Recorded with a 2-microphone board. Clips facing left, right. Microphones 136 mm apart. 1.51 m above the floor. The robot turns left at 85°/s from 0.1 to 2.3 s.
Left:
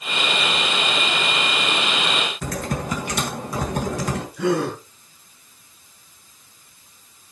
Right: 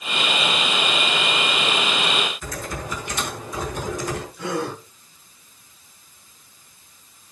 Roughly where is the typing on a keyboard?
Left.